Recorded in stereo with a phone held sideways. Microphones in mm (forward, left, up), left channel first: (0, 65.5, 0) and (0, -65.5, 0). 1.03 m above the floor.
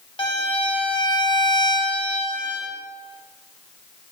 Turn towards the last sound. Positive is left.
turn(degrees=40)  # may be behind; listen again after turning